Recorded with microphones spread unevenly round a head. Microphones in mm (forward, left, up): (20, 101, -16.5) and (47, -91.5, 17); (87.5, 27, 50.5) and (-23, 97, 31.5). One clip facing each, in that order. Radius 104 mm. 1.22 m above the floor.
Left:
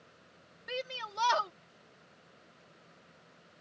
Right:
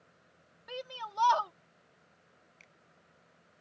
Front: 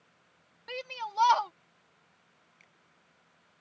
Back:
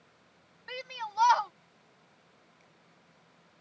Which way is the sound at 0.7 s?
35° left.